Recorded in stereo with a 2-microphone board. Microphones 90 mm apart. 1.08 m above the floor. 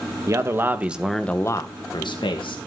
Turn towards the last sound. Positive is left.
turn(degrees=70)  # may be behind; listen again after turning